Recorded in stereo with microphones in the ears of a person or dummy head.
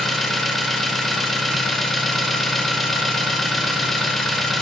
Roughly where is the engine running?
Centre.